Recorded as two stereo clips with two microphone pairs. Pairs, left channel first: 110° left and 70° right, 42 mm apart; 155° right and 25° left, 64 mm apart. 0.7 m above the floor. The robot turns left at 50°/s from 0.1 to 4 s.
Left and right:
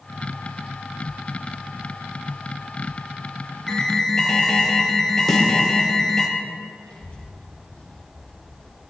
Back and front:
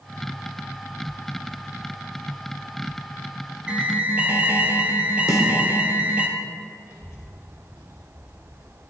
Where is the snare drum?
165° right, 1.8 m.